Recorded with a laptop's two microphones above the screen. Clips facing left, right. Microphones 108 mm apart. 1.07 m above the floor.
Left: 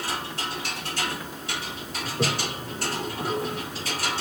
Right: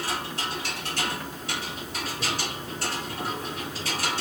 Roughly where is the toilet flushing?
Left.